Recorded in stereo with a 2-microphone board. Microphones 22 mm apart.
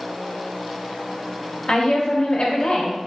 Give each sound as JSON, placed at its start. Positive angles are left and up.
{"t": 1.7, "sound": "a woman speaking", "side_deg": 45, "distance_m": 0.8}